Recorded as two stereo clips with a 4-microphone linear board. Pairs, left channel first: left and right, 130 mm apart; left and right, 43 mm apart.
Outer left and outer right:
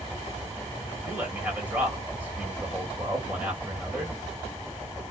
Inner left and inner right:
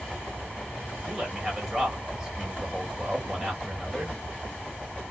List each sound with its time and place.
1.1 s a man speaking: 10° right (ahead or behind), 1.8 m